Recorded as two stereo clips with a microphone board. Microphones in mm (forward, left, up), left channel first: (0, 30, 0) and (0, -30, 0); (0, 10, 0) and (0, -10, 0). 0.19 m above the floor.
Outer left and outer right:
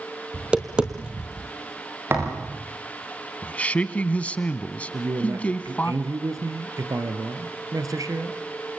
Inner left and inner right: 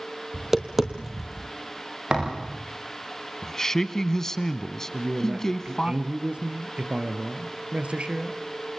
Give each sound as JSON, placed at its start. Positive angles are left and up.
{"t": 0.3, "sound": "tapping", "side_deg": -15, "distance_m": 1.9}
{"t": 2.1, "sound": "a thud", "side_deg": -40, "distance_m": 9.5}
{"t": 3.4, "sound": "a man speaking", "side_deg": 25, "distance_m": 1.3}
{"t": 4.9, "sound": "a man speaking", "side_deg": -70, "distance_m": 3.0}